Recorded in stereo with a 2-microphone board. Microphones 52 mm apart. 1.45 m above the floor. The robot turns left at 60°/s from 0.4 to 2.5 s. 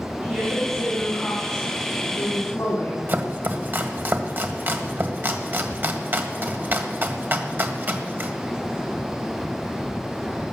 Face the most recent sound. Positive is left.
turn(degrees=-40)  # may be behind; listen again after turning